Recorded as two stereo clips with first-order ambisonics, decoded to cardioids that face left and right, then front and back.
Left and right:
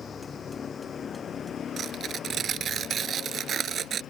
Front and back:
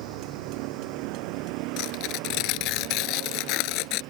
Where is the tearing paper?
25° right.